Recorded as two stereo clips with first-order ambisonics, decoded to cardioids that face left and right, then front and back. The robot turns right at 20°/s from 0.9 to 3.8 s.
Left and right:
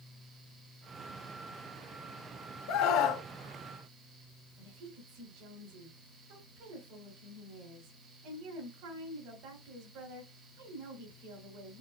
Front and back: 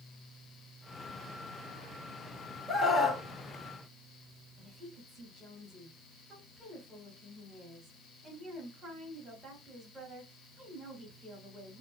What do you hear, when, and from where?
2.7 s a scream: 75° left, 1.4 m; by 3.2 s 85° left, 1.4 m
4.6 s a woman speaking: 105° right, 3 m